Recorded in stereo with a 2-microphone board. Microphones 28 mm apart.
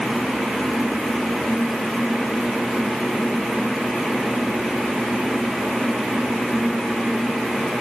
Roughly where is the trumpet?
I don't hear a trumpet.